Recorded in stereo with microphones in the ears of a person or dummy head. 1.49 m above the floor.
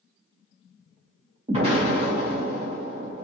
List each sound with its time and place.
1.5 s an explosion: 35° right (ahead or behind), 0.8 m